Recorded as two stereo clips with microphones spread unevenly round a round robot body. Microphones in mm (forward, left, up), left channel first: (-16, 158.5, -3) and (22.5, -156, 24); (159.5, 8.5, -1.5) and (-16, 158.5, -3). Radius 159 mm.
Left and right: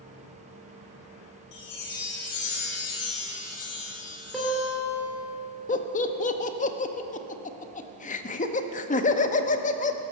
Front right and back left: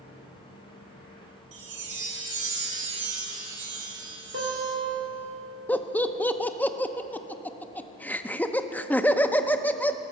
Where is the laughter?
40° left, 0.7 m.